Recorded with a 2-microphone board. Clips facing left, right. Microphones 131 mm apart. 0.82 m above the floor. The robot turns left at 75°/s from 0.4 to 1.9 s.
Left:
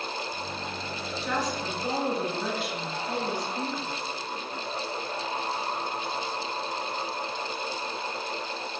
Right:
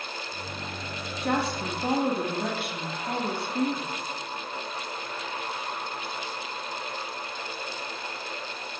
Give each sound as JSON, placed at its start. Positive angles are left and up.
{"t": 1.2, "sound": "a woman speaking", "azimuth_deg": -60, "distance_m": 1.8}